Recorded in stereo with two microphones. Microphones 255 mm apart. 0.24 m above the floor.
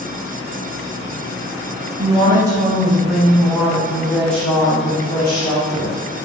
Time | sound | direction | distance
2.0 | a woman speaking | 20° right (ahead or behind) | 1.1 m